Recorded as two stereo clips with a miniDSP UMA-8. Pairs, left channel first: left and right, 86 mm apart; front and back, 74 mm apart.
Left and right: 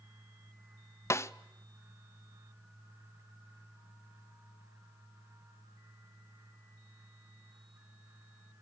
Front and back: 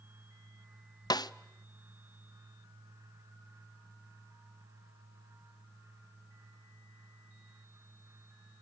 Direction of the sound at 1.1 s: 30° left.